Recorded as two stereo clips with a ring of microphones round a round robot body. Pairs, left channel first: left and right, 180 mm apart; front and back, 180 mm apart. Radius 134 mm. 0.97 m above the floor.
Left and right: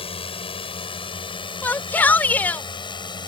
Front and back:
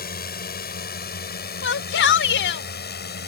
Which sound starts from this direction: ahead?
A shout, at 1.6 s.